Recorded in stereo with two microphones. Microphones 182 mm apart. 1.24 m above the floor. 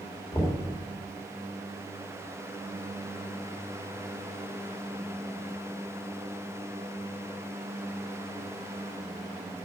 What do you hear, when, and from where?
0.3 s knocking: 20° left (ahead or behind), 2.5 m